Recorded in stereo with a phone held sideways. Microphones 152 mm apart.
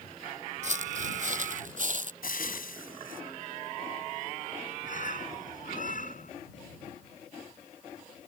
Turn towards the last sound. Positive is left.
turn(degrees=60)  # may be behind; listen again after turning